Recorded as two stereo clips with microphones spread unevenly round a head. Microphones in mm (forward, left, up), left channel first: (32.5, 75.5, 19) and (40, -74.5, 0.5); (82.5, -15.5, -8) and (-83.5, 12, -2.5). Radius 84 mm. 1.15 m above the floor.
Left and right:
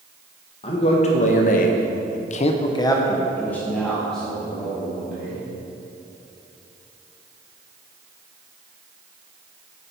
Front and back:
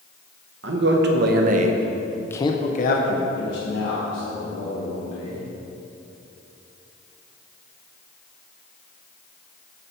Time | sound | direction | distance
0.6 | a man speaking | 150° left | 1.1 m